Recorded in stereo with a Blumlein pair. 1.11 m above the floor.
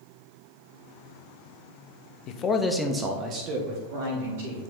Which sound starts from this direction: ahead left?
A man speaking, at 2.3 s.